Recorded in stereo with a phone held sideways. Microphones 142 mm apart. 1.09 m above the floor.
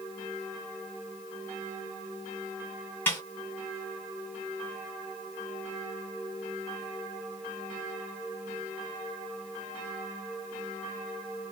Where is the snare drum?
15° left (ahead or behind), 2 m.